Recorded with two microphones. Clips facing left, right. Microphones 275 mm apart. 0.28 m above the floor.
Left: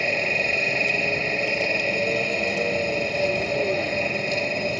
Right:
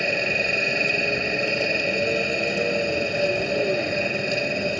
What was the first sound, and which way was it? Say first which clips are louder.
A helicopter: right 1 dB; 10° right (ahead or behind).